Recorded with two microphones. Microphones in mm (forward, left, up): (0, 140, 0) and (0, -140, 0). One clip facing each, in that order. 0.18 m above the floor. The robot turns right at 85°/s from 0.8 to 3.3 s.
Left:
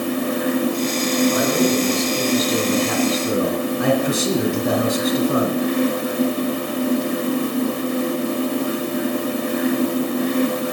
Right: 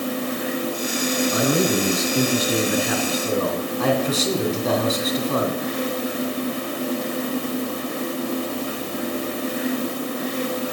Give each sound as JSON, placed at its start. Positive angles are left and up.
{"t": 1.3, "sound": "a man speaking", "azimuth_deg": -150, "distance_m": 2.0}